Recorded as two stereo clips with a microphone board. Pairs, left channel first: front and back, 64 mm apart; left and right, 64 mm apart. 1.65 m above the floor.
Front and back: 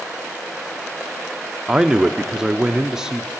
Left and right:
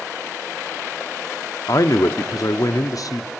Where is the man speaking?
105° left, 0.6 m.